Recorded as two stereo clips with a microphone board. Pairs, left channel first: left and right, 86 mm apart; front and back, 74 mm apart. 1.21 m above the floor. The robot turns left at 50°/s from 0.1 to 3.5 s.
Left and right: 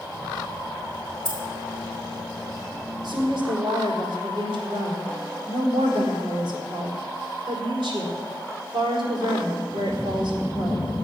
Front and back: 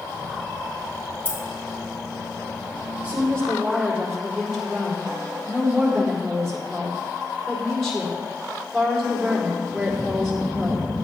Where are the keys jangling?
115° left, 3.5 m; by 1.4 s 105° left, 3.5 m.